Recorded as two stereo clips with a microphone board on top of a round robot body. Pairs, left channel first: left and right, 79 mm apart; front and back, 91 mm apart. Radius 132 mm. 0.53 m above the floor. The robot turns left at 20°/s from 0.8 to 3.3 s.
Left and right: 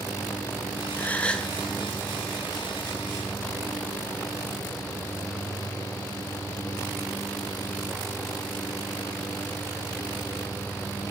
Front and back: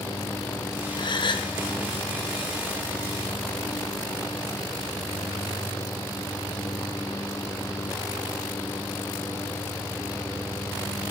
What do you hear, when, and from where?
1.0 s a gasp: 20° left, 0.9 m; by 1.5 s 10° left, 0.9 m